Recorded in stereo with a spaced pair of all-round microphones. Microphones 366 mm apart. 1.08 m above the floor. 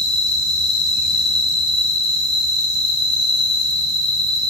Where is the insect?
15° left (ahead or behind), 3 m.